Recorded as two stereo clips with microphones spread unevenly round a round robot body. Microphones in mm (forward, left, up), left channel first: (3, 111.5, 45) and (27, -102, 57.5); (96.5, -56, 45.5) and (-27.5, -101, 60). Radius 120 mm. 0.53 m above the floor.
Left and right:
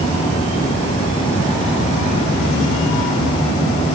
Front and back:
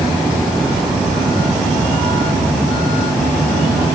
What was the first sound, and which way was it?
Only background noise.